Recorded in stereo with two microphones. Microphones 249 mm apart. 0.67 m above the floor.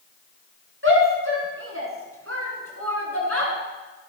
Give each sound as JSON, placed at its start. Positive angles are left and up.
{"t": 0.8, "sound": "a shout", "side_deg": -55, "distance_m": 7.5}